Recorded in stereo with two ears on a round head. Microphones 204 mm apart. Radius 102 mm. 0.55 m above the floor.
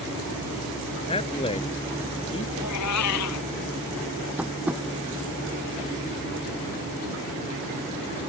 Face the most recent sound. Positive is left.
turn(degrees=-5)  # may be behind; listen again after turning